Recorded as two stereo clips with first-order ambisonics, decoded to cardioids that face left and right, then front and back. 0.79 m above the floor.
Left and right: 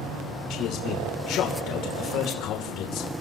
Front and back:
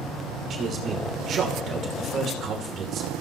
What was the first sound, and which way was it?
A man speaking, 125° left.